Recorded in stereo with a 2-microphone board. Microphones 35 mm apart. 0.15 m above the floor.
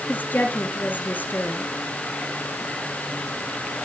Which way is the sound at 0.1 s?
55° left (ahead or behind).